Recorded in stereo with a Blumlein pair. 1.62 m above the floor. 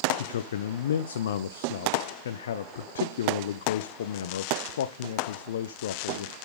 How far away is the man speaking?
About 0.6 m.